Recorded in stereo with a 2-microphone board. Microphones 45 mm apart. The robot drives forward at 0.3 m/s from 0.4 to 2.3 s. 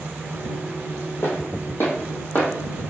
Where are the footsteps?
70° left (ahead or behind), 1.4 m; by 2.5 s 35° left (ahead or behind), 1.0 m.